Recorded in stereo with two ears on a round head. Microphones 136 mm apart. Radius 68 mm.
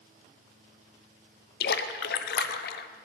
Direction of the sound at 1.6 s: 70° left (ahead or behind).